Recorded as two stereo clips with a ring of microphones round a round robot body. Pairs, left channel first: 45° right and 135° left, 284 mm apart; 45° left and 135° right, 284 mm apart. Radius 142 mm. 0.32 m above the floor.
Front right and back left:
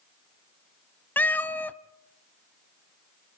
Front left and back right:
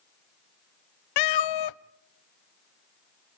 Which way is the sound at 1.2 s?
40° left.